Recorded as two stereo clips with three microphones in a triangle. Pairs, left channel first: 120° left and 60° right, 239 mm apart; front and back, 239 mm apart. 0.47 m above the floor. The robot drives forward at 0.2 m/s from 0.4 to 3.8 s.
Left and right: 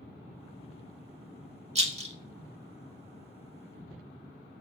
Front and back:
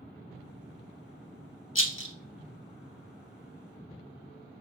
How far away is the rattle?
About 0.6 m.